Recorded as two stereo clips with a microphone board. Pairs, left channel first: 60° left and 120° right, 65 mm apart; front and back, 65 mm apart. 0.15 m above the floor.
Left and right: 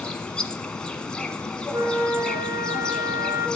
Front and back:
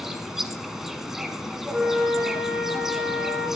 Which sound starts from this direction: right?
A flute, at 1.7 s.